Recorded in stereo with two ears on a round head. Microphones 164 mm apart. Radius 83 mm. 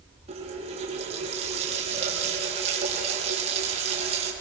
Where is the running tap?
35° right (ahead or behind), 6.5 m.